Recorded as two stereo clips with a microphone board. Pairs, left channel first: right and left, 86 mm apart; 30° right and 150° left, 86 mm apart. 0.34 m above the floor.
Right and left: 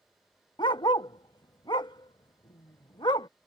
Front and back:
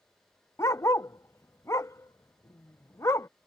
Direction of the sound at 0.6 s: 80° right.